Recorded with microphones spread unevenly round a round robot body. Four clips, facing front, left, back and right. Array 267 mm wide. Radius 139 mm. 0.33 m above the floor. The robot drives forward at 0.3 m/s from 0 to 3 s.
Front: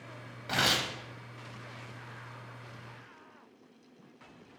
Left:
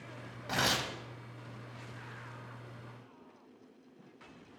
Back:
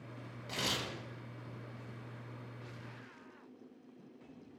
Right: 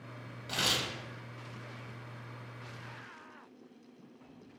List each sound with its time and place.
0.5 s tearing paper: 20° left, 2.5 m; by 0.9 s 25° left, 2.5 m